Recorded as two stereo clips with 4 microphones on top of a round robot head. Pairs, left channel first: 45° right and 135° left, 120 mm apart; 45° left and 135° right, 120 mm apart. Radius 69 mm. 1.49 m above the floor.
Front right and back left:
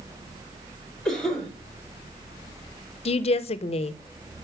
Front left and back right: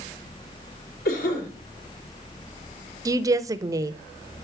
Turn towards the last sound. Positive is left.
turn(degrees=-75)